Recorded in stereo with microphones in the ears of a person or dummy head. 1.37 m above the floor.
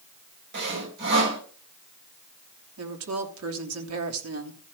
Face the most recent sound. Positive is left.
turn(degrees=-80)